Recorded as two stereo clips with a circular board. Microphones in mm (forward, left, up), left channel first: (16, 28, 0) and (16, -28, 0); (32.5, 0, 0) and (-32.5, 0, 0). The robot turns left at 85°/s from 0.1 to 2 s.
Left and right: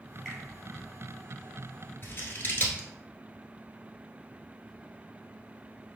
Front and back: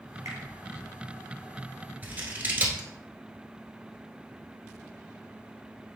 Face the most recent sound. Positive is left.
turn(degrees=130)